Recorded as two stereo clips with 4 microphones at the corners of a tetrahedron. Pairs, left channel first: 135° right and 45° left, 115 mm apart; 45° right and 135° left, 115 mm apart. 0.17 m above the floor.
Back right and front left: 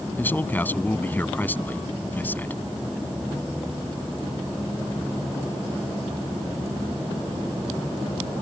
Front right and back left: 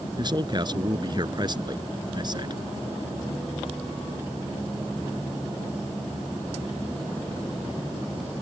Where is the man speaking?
160° left.